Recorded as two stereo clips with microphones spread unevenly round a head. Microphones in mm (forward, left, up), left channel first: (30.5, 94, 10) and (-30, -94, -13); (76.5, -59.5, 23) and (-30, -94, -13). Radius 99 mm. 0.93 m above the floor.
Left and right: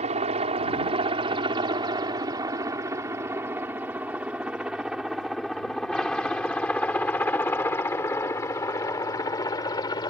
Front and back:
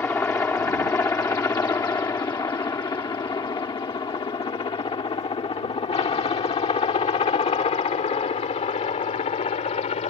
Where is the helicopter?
55° right; by 10.1 s 5° left.